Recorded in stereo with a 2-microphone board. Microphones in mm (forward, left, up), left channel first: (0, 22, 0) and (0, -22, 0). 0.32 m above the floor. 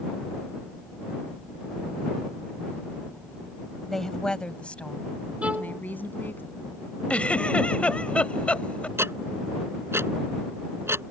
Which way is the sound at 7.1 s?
30° left (ahead or behind).